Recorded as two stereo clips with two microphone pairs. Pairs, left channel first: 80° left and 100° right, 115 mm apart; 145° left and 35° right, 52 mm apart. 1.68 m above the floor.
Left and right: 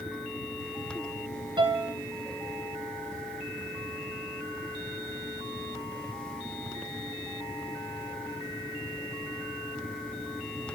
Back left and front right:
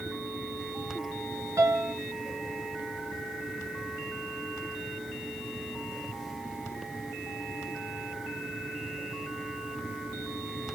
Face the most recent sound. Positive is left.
turn(degrees=-55)